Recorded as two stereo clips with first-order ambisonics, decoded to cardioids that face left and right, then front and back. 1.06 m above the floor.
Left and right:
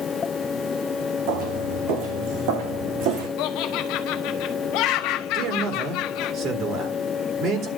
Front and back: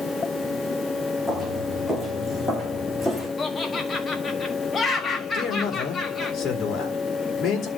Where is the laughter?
70° left, 1.4 m.